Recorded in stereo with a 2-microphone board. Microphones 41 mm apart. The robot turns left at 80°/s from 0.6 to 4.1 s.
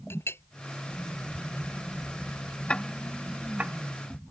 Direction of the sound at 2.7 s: 30° left (ahead or behind).